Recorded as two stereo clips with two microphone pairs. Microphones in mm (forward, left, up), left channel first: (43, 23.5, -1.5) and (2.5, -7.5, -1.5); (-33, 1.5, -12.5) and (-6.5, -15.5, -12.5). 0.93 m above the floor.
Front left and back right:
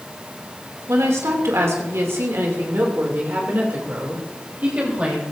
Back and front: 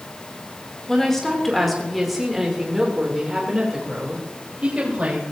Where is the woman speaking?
135° right, 3 m; by 5.2 s 80° right, 3.5 m.